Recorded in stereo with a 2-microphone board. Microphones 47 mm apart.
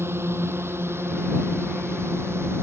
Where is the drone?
60° right (ahead or behind); by 2.6 s 65° right (ahead or behind).